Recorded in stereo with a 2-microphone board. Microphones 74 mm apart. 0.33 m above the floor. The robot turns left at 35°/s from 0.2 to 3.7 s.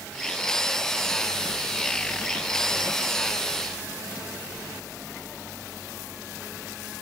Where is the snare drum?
No snare drum in this recording.